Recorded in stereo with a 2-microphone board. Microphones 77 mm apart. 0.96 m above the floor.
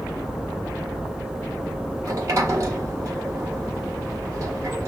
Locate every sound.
2.0 s a sliding door: 40° right (ahead or behind), 1.1 m